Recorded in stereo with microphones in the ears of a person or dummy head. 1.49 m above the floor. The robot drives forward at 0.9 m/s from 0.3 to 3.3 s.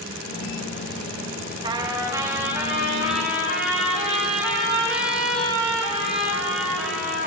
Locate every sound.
1.6 s a trumpet: 25° right (ahead or behind), 0.9 m; by 7.3 s 10° right (ahead or behind), 2.5 m